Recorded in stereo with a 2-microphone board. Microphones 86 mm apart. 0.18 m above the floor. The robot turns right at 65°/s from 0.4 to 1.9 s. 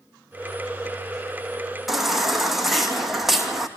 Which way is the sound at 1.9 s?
Centre (ahead or behind).